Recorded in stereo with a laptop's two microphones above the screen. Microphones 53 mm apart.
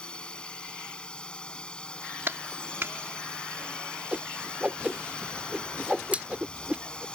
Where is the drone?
20° left (ahead or behind).